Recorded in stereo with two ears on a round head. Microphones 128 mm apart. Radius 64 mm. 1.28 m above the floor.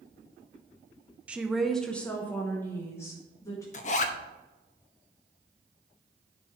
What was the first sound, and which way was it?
A woman speaking, 10° right (ahead or behind).